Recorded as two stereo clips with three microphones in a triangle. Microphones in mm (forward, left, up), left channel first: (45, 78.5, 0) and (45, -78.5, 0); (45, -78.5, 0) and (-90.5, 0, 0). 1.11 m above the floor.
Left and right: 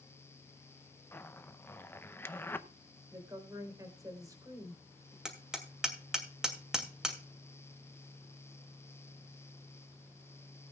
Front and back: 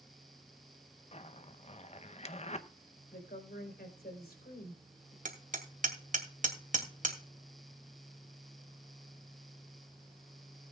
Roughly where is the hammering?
Behind.